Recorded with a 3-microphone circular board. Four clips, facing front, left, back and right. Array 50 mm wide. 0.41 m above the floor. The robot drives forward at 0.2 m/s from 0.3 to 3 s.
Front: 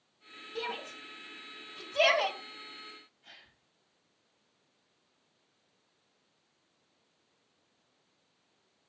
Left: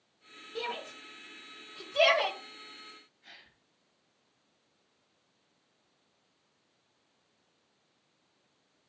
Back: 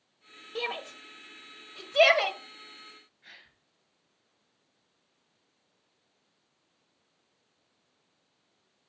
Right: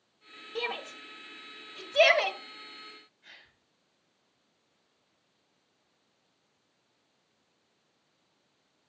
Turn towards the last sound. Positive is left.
turn(degrees=-175)